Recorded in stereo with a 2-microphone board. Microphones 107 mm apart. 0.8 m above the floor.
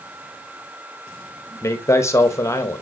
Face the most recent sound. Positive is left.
turn(degrees=25)  # may be behind; listen again after turning